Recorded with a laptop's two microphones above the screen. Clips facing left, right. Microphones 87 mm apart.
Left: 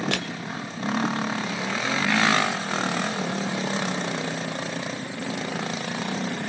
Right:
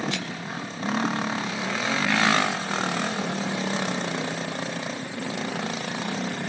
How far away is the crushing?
About 1.9 m.